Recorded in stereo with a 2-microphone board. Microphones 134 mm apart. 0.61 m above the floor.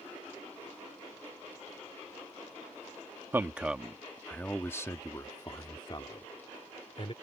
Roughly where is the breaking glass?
No breaking glass in this recording.